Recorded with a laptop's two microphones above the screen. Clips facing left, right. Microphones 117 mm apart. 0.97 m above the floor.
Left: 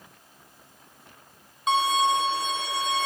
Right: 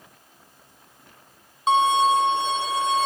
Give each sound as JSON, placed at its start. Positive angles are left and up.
{"t": 1.7, "sound": "a violin", "side_deg": -30, "distance_m": 0.9}